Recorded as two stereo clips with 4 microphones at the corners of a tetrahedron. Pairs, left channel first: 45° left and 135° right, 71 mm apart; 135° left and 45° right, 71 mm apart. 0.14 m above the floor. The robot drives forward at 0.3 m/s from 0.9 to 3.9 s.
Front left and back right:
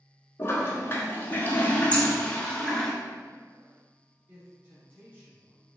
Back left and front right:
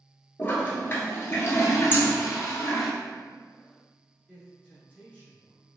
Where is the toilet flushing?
90° left, 0.9 m; by 2.9 s 130° left, 1.1 m.